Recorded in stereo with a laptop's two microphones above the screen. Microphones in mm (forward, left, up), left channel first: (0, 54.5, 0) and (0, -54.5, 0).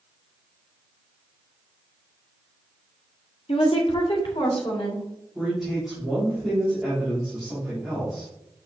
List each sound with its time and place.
3.5 s a woman speaking: 55° left (ahead or behind), 1.6 m; by 5.0 s 45° left (ahead or behind), 2.5 m
5.3 s a man speaking: 5° right (ahead or behind), 3 m